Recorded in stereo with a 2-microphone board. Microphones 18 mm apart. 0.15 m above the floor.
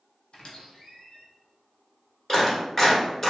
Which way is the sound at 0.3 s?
65° left (ahead or behind).